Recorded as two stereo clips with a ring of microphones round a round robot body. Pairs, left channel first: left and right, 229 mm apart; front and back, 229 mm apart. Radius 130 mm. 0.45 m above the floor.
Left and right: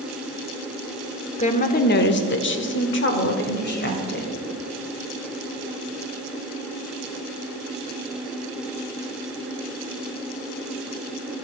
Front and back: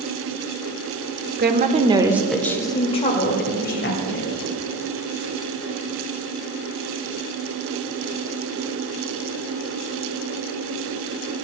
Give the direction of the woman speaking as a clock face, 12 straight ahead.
7 o'clock.